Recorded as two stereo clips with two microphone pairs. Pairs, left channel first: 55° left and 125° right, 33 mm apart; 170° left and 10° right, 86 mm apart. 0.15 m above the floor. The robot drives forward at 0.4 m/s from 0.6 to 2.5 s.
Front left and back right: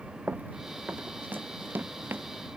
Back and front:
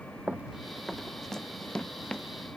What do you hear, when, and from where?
0.3 s running footsteps: 85° right; by 2.3 s 115° right